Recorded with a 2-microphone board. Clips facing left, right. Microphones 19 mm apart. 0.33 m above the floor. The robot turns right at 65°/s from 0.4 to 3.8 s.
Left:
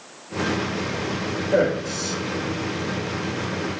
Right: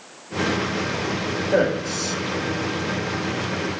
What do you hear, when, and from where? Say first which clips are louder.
1.5 s a man speaking: even; 10° right (ahead or behind), 0.9 m; by 2.2 s 20° right (ahead or behind), 0.9 m